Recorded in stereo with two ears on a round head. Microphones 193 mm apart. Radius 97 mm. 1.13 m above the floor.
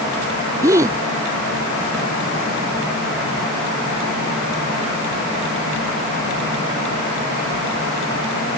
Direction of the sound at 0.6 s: 15° right (ahead or behind).